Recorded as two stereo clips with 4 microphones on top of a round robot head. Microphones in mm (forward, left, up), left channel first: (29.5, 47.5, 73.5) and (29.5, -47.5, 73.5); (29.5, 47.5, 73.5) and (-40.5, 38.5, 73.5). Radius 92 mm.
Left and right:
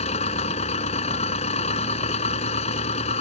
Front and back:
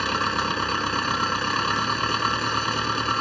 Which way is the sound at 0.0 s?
95° left.